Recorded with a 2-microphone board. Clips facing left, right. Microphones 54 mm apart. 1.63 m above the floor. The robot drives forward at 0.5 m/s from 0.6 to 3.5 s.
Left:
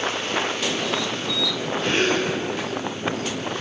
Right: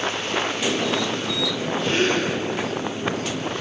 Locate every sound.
1.8 s a gasp: 55° left (ahead or behind), 1.7 m; by 2.3 s 60° left (ahead or behind), 1.6 m